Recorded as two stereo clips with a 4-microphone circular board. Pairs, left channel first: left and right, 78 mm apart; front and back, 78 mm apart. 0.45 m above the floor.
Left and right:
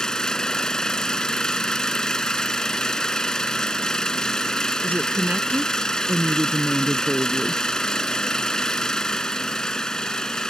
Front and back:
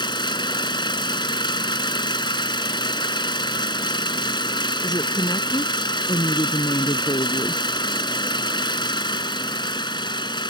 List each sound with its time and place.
0.0 s an engine running: 10° left
4.8 s a woman speaking: 20° right